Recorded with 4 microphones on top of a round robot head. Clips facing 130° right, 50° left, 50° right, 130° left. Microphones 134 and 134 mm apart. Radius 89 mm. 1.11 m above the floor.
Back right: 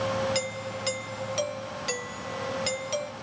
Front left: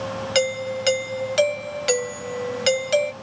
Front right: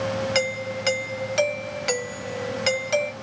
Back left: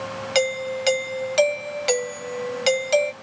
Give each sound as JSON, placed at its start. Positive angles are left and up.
{"t": 0.3, "sound": "a doorbell", "azimuth_deg": 65}